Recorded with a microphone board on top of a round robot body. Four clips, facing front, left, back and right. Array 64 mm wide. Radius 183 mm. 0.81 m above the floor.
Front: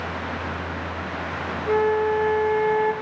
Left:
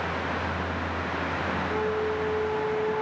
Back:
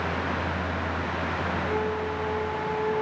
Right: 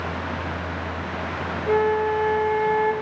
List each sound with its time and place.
1.7 s a flute: 55° right, 0.6 m